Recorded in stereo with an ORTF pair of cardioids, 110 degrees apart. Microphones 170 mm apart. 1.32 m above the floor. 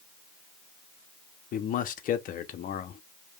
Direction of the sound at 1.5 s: 55° left.